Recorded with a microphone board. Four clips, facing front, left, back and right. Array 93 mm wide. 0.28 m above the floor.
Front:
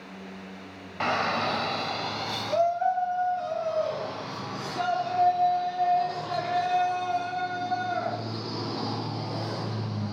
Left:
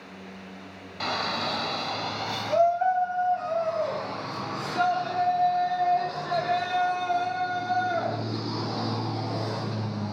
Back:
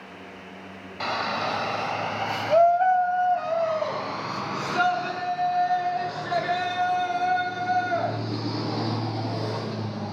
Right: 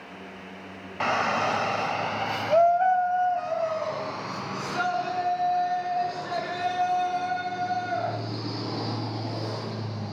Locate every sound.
1.0 s a shout: 65° right, 1.3 m; by 10.1 s straight behind, 6.5 m